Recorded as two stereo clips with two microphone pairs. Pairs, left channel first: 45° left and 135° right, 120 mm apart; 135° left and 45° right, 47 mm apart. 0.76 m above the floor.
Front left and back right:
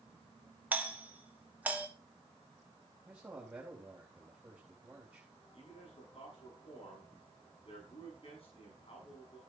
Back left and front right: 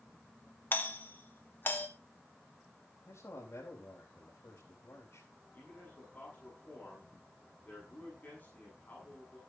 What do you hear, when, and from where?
0.7 s a doorbell: 150° left, 1.9 m
3.1 s a man speaking: 145° left, 4 m
5.5 s a man speaking: 80° left, 7 m